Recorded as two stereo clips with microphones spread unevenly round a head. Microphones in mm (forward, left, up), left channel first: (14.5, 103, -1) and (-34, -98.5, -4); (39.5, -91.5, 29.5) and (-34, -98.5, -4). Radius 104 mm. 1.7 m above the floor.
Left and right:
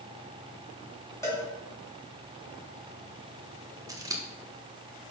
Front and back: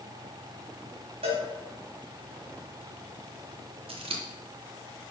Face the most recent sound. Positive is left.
turn(degrees=180)